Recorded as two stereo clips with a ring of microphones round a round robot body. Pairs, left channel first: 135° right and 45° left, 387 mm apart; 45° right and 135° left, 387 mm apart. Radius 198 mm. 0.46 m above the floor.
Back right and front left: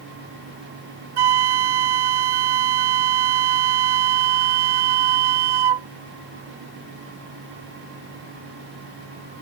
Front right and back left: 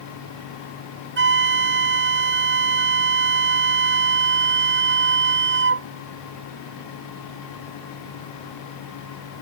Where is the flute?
70° left.